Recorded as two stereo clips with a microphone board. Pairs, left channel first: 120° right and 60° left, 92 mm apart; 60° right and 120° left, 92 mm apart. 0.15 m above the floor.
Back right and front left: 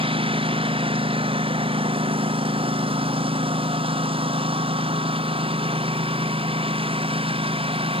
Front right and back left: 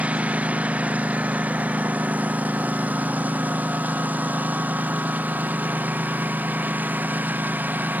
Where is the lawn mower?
45° left; by 8.0 s 50° left.